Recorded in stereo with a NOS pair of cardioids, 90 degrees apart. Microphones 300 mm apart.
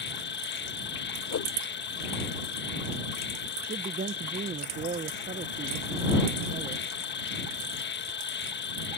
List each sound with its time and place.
0.0 s an insect: 40° left
1.3 s a whoosh: 55° left
3.7 s a man speaking: 30° right